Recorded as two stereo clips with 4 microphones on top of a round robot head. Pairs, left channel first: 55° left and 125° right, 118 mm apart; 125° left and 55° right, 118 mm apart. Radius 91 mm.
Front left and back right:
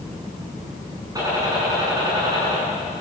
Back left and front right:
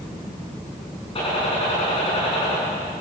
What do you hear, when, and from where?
1.1 s a gunshot: 170° left, 8.5 m